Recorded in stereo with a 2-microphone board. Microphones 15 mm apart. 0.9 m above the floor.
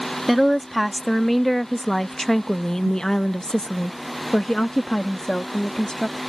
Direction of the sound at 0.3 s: 5° right (ahead or behind).